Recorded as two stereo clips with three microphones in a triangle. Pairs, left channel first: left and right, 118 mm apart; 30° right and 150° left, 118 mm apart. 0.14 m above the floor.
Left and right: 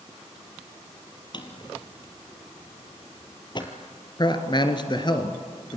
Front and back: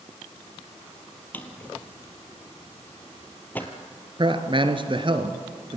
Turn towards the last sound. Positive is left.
turn(degrees=125)